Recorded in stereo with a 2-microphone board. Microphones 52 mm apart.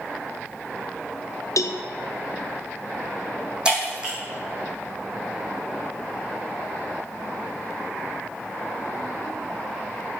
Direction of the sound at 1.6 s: 75° left (ahead or behind).